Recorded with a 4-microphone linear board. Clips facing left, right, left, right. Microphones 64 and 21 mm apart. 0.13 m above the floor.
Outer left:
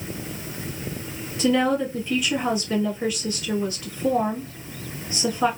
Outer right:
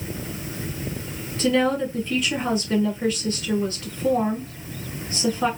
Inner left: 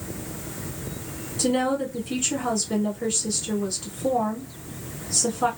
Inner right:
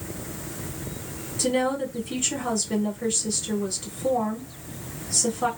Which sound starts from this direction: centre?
A woman speaking, at 1.4 s.